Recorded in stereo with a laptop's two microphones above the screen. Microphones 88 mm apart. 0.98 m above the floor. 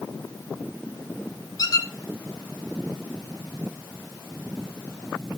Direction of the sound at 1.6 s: 45° left (ahead or behind).